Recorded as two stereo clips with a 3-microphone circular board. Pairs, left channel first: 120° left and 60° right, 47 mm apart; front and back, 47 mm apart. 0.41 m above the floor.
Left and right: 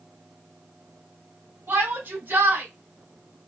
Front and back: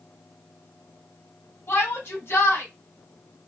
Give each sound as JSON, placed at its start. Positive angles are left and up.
{"t": 1.7, "sound": "a shout", "azimuth_deg": -30, "distance_m": 2.5}